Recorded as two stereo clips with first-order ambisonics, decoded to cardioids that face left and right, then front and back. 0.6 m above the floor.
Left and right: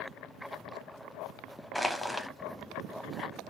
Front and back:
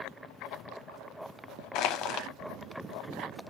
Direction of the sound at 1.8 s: Straight ahead.